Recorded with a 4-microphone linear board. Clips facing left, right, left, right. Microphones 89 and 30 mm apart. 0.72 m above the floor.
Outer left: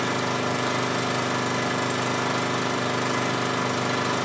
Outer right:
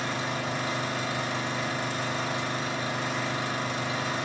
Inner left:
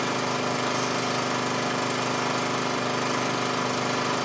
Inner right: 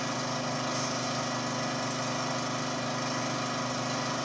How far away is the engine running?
About 0.8 m.